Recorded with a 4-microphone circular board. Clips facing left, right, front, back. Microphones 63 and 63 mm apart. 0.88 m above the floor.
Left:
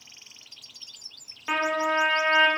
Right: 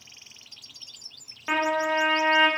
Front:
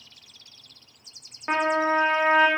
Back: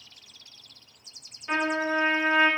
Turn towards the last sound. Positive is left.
turn(degrees=-15)